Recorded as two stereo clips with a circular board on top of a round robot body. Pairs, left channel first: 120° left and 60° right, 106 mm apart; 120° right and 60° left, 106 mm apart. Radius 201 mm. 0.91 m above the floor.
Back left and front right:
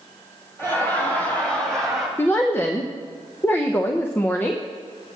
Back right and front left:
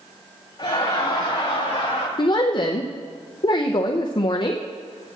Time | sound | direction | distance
0.6 | laughter | 170° right | 3.5 m
2.2 | a woman speaking | 170° right | 0.6 m